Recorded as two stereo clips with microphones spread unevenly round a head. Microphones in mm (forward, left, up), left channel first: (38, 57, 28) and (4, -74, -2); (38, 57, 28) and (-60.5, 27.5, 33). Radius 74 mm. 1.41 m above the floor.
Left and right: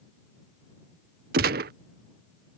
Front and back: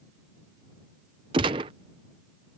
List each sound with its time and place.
1.3 s a gunshot: 110° right